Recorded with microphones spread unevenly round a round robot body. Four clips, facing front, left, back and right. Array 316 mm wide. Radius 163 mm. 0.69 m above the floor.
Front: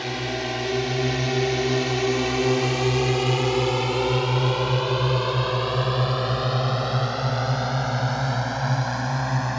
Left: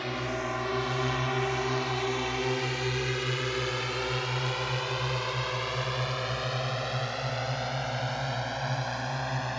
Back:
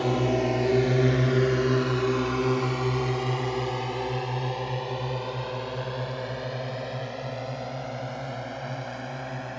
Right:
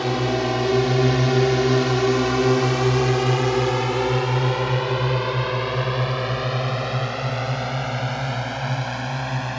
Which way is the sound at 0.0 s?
125° right.